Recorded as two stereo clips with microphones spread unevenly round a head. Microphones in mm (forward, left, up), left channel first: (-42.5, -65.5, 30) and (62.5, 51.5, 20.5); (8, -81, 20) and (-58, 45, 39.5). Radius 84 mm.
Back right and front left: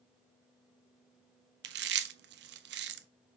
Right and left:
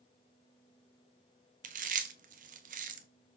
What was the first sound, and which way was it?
Chewing, 75° left.